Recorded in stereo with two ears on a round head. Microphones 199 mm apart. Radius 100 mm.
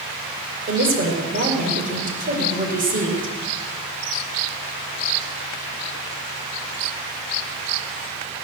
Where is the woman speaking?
40° right (ahead or behind), 5 m.